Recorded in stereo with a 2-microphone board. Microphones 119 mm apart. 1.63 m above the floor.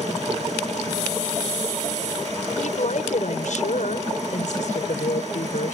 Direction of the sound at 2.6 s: 85° left.